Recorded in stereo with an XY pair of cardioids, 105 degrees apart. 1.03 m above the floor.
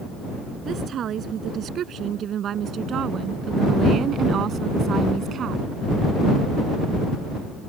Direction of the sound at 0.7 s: 60° right.